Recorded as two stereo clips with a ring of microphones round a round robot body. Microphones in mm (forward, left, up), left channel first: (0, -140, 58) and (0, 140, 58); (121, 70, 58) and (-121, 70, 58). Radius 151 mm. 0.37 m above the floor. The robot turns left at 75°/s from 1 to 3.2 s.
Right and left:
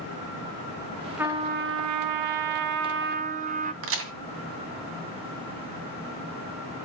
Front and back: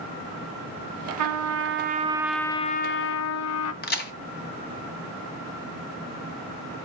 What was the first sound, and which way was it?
A trumpet, 175° left.